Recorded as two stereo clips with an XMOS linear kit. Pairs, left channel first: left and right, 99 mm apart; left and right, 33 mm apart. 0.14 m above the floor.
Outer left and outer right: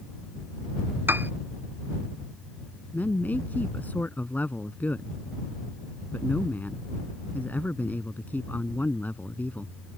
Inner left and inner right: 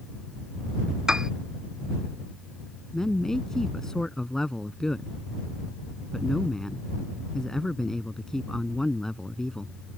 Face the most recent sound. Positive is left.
turn(degrees=20)  # may be behind; listen again after turning